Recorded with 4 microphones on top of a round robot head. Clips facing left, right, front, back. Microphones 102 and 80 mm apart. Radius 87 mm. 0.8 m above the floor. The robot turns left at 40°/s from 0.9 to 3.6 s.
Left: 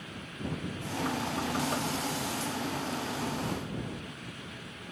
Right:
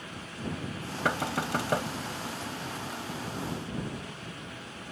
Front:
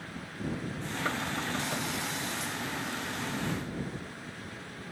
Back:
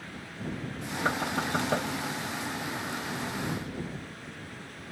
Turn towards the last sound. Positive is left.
turn(degrees=145)